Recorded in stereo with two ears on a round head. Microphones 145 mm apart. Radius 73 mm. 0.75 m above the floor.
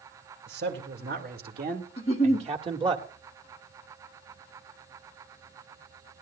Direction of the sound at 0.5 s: 75° right (ahead or behind).